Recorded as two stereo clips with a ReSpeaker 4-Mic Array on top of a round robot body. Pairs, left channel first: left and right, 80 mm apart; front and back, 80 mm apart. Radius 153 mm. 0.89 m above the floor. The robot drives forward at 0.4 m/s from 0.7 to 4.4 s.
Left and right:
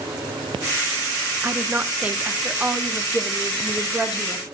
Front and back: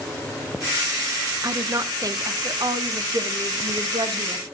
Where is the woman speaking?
150° right, 0.9 m; by 4.5 s 170° right, 1.9 m.